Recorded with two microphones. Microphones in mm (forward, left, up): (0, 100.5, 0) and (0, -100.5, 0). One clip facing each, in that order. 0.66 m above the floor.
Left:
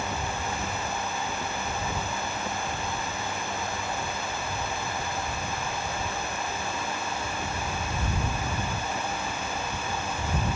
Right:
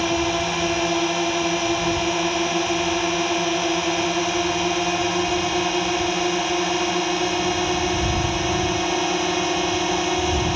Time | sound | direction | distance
0.0 | a drone | 80° right | ?